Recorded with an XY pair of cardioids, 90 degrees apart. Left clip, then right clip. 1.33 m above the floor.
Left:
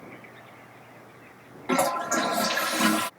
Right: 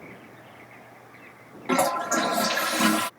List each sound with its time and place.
1.7 s a toilet flushing: 5° right